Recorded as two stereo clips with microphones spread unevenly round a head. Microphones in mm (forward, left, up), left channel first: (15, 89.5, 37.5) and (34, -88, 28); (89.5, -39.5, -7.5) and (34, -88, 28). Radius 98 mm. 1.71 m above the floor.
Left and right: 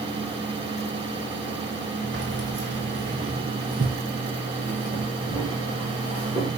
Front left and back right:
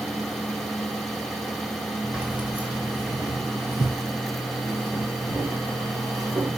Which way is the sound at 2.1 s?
90° right.